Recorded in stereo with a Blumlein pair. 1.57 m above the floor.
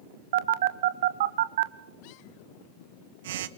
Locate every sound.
0.3 s a phone buzzing: 55° right, 1.1 m